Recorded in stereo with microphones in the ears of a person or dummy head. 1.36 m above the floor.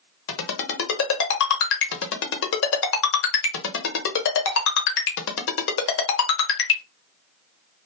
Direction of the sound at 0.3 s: 70° left (ahead or behind).